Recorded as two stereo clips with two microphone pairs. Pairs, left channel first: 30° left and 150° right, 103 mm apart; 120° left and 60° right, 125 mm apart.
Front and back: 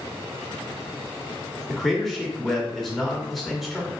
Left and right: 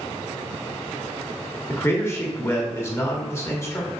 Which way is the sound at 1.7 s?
120° left.